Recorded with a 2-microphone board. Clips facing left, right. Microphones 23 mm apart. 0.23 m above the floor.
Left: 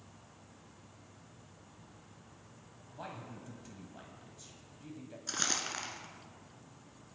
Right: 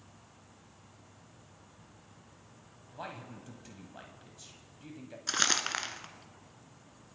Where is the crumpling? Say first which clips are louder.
Right 6 dB; 40° right (ahead or behind), 0.9 m.